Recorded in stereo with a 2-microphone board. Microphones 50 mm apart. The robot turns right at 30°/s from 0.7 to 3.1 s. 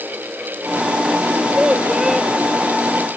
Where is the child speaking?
30° right; by 2.3 s straight ahead.